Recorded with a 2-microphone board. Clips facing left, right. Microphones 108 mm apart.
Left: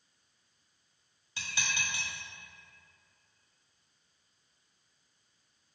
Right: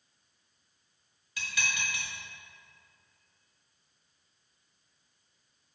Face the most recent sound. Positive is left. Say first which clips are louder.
# right 2 dB
turn(degrees=30)  # may be behind; listen again after turning